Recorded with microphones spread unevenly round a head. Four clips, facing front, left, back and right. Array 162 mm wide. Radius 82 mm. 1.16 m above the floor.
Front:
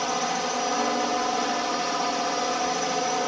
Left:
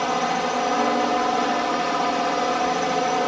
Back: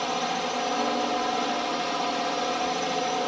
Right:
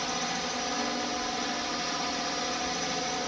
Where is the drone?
90° left.